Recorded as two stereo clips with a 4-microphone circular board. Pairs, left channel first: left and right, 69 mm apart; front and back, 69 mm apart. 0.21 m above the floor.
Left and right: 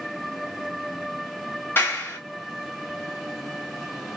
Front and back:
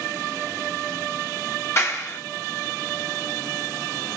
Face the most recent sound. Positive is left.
turn(degrees=40)